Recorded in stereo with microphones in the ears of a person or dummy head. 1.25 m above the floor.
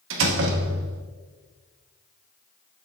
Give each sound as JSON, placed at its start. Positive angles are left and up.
{"t": 0.1, "sound": "a door slam", "side_deg": -75, "distance_m": 0.9}